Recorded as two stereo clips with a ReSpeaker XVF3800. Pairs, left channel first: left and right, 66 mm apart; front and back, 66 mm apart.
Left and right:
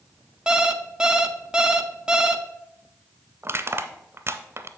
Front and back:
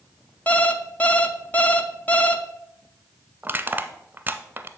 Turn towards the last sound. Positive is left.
turn(degrees=-125)